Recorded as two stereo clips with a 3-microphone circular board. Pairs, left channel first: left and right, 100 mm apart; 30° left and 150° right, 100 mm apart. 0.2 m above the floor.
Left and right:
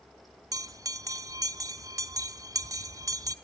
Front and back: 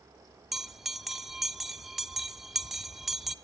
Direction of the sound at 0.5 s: 65° right.